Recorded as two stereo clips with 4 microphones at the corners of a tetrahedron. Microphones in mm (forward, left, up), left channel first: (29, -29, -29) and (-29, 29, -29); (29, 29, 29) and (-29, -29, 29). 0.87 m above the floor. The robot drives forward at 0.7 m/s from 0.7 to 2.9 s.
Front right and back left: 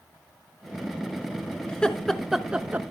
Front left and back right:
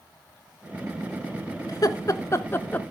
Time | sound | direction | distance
1.7 | laughter | 30° left | 1.1 m